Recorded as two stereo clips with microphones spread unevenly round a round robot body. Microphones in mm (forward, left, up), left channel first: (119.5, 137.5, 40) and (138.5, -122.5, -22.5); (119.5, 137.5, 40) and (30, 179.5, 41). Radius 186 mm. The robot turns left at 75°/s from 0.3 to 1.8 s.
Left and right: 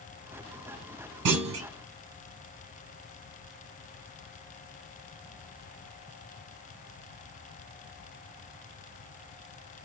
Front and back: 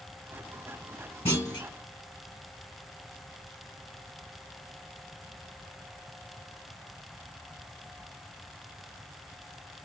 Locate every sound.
1.2 s a clunk: 95° right, 1.0 m; by 1.7 s 125° right, 1.0 m